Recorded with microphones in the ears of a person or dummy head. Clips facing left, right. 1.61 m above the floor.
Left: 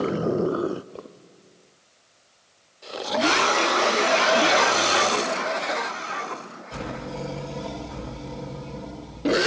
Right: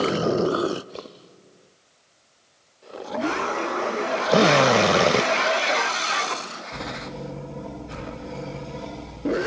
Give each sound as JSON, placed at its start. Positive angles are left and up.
{"t": 4.3, "sound": "a drill", "side_deg": -85}